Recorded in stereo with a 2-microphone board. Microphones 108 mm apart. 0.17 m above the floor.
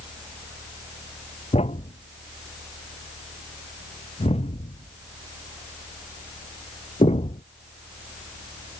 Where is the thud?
80° left.